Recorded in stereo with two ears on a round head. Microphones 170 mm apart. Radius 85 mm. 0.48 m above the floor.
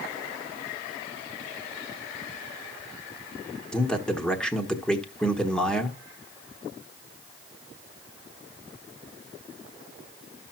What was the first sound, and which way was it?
A man speaking, 5° left (ahead or behind).